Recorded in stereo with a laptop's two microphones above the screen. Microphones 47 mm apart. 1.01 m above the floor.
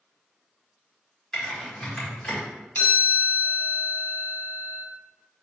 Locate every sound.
1.3 s typing on a keyboard: 15° left (ahead or behind), 1.8 m
2.8 s a chime: 40° left (ahead or behind), 1.4 m